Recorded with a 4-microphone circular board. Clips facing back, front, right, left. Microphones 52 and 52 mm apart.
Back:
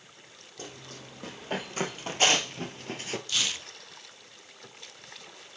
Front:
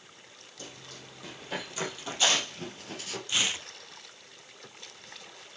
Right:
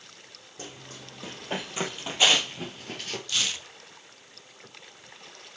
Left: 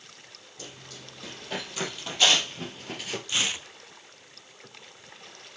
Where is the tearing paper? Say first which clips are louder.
Front 4 dB, left 2 dB; 50° left, 0.9 m.